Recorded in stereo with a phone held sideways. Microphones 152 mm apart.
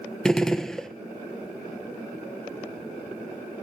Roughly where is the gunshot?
Centre.